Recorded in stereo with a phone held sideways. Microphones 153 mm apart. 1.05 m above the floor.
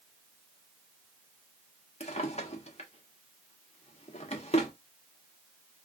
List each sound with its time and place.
2.0 s a drawer: 45° left (ahead or behind), 0.9 m